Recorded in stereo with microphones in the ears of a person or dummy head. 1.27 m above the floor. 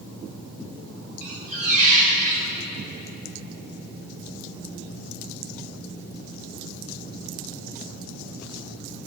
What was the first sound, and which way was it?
A squeak, 45° right (ahead or behind).